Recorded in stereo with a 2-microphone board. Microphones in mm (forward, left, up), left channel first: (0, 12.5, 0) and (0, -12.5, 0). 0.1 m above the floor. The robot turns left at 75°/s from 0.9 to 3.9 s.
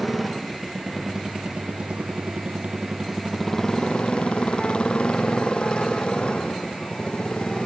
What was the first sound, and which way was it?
A motorcycle, 5° left.